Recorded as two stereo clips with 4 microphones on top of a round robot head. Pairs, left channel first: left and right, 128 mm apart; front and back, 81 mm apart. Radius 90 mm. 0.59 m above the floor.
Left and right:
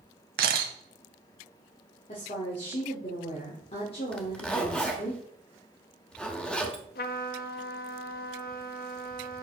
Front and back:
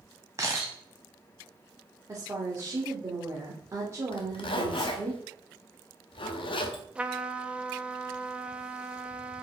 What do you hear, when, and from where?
0.4 s a camera shutter: 110° right, 0.7 m
2.1 s a woman speaking: 130° left, 1.6 m
4.1 s a zipper: 5° left, 1.0 m
7.0 s a trumpet: 105° left, 0.5 m